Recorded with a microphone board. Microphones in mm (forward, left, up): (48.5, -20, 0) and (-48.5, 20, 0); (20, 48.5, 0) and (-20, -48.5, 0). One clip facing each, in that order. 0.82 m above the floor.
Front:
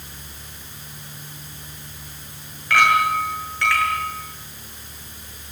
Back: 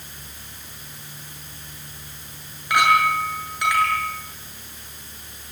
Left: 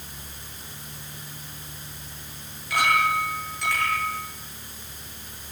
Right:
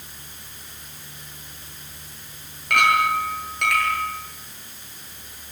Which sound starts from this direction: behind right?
A clink, at 2.7 s.